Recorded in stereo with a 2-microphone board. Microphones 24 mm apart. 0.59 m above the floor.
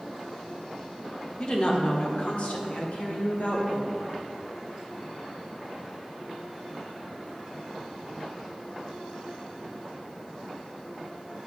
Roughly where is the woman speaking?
Left.